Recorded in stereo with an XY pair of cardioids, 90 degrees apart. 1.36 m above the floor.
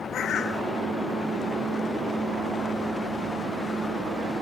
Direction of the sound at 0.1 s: 60° left.